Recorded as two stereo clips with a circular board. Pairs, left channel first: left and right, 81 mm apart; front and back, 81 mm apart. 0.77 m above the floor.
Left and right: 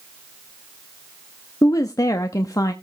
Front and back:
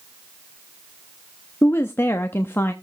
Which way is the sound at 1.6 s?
55° left.